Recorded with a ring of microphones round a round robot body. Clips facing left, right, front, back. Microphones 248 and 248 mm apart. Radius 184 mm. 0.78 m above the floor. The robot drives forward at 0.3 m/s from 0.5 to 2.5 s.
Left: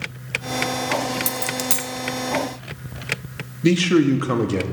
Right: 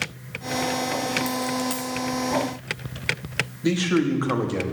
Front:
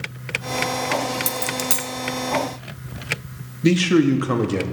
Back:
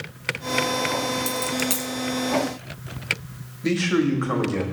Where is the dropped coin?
65° left, 1.1 m; by 1.9 s 80° left, 1.0 m.